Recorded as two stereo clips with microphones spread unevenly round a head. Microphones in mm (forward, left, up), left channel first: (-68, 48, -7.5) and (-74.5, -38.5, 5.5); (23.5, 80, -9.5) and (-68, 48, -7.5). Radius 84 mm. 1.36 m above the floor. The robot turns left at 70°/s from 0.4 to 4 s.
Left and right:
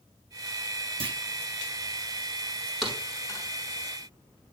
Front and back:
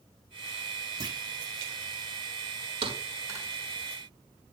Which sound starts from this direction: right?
A clunk, at 1.0 s.